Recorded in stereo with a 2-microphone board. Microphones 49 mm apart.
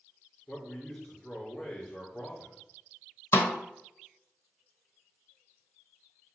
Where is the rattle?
No rattle in this recording.